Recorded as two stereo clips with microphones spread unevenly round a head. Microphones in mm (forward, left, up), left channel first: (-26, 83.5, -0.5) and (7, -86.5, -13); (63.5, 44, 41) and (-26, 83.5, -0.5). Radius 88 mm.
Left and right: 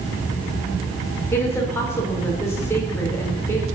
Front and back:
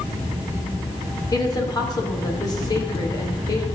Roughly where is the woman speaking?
Ahead left.